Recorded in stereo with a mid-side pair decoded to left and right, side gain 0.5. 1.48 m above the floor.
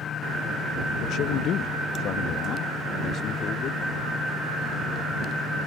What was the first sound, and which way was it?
A man speaking, 70° left.